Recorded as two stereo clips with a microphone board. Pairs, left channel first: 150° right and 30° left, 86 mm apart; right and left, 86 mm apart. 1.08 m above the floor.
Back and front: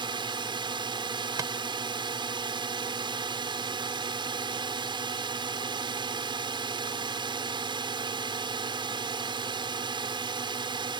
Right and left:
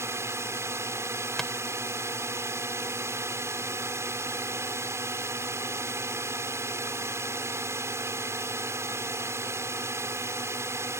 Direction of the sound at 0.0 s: 35° left.